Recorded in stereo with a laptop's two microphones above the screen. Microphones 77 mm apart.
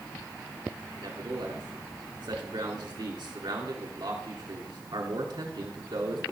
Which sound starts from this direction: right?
A man speaking, at 1.0 s.